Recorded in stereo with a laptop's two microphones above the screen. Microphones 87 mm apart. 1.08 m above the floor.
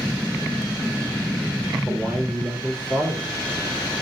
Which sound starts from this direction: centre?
A man speaking, at 1.9 s.